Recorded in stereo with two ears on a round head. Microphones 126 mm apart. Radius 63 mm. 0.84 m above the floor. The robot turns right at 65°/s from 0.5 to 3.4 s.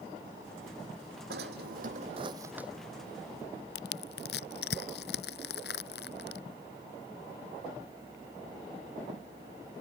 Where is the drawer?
95° right; by 2.7 s 5° right.